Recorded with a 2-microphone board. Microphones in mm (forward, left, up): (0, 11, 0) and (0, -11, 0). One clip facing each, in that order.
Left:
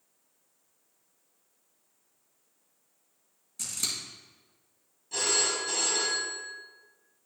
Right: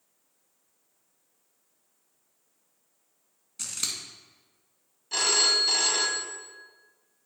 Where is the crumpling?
I don't hear crumpling.